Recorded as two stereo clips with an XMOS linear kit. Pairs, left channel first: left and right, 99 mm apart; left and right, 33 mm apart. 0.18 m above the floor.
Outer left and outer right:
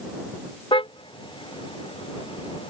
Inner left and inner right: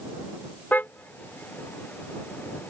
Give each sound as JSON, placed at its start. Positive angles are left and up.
{"t": 0.7, "sound": "a car horn", "side_deg": 65}